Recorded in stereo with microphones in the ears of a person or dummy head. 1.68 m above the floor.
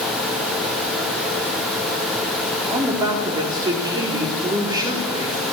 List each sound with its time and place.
2.7 s a woman speaking: 20° right (ahead or behind), 3.5 m